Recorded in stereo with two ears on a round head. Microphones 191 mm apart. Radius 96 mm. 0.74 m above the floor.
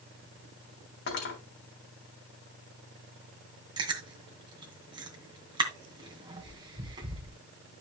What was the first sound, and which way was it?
Cutlery clinking, 55° left (ahead or behind).